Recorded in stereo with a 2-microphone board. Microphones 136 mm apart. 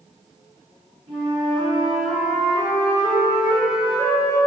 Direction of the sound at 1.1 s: 55° right (ahead or behind).